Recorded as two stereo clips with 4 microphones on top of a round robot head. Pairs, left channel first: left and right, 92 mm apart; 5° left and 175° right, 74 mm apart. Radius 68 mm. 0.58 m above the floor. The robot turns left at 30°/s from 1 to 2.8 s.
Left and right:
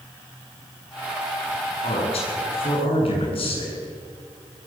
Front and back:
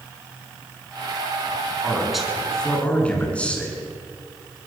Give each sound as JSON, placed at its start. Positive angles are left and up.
{"t": 1.8, "sound": "a man speaking", "azimuth_deg": 110, "distance_m": 8.5}